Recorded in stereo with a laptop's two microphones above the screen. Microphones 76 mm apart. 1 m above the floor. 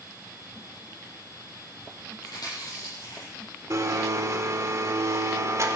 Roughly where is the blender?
Right.